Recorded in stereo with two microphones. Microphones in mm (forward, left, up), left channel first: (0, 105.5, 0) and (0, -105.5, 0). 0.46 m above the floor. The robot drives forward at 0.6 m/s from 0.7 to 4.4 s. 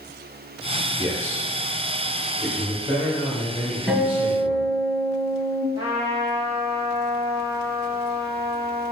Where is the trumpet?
15° right (ahead or behind), 1.7 m.